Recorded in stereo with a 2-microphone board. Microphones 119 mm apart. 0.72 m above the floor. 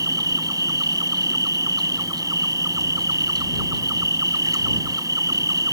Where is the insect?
25° right (ahead or behind).